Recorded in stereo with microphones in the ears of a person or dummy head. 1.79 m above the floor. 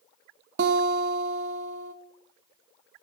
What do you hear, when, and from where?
0.6 s a guitar: 60° right (ahead or behind), 1.1 m